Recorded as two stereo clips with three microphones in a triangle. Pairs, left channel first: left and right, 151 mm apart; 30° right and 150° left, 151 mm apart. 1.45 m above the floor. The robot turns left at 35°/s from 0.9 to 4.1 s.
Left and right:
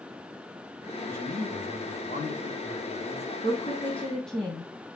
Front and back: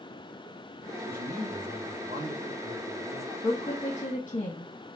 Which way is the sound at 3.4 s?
45° left.